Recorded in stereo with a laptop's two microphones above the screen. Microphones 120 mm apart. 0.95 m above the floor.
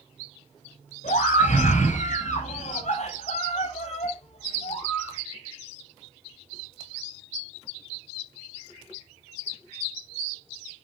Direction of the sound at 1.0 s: 85° left.